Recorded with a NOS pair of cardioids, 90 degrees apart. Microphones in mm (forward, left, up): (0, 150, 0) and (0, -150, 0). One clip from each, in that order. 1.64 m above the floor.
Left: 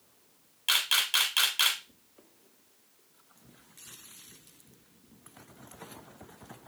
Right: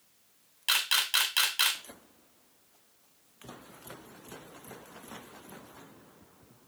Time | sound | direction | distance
0.7 | a camera shutter | 10° right | 0.8 m